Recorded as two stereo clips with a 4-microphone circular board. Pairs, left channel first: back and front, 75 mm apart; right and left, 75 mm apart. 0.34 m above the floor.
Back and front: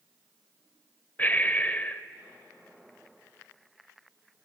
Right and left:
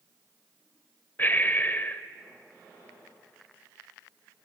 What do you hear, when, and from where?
1.2 s breathing: 130° right, 0.8 m